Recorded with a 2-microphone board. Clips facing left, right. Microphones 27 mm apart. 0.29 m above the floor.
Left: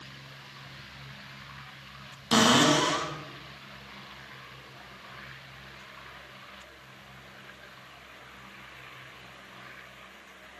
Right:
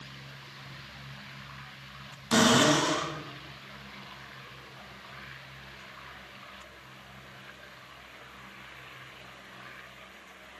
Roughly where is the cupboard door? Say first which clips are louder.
Left 1 dB; left.